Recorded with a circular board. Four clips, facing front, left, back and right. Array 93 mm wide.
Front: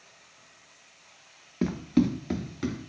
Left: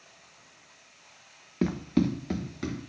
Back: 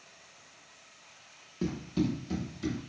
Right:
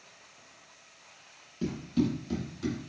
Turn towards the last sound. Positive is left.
turn(degrees=40)